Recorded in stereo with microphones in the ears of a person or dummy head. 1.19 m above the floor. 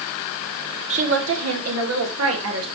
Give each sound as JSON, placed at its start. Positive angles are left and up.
{"t": 0.9, "sound": "a woman speaking", "side_deg": -30, "distance_m": 0.7}